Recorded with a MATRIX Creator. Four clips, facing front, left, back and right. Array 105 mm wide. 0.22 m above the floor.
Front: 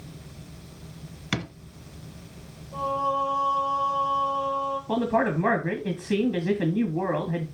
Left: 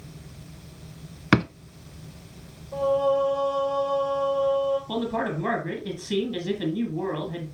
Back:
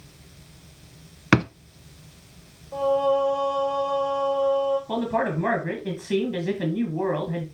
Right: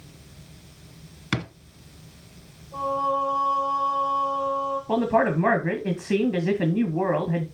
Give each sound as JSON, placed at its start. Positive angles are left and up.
{"t": 1.3, "sound": "a drawer", "azimuth_deg": 140, "distance_m": 0.5}
{"t": 2.7, "sound": "singing", "azimuth_deg": 155, "distance_m": 5.0}
{"t": 4.9, "sound": "a man speaking", "azimuth_deg": -80, "distance_m": 1.3}